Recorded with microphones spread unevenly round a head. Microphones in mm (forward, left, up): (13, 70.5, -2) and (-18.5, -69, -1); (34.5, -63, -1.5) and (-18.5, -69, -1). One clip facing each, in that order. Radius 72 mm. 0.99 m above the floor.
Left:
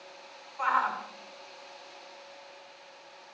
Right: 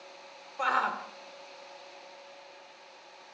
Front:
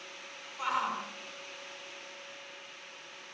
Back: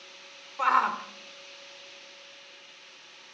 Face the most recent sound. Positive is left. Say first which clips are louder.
# left 1 dB, back 8 dB
turn(degrees=-150)